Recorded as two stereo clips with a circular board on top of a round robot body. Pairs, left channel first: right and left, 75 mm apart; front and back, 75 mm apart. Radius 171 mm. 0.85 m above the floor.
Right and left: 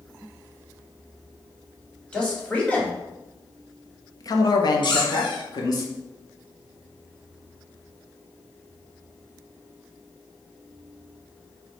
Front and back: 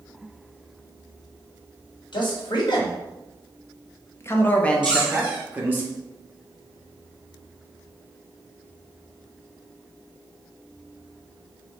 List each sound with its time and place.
2.1 s a man speaking: 15° right, 1.6 m; by 5.8 s 120° right, 1.0 m
4.8 s a squeak: 105° right, 1.2 m